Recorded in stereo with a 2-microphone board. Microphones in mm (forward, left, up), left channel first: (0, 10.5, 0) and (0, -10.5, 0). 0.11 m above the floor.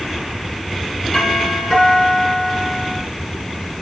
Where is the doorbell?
35° left (ahead or behind), 4.5 m.